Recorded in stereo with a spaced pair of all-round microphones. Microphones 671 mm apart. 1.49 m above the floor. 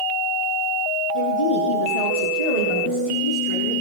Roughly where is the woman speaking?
Left.